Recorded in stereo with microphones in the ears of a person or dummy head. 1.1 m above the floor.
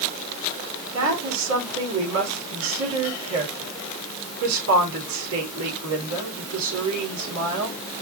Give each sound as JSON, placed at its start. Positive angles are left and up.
{"t": 0.9, "sound": "a woman speaking", "side_deg": -80, "distance_m": 3.5}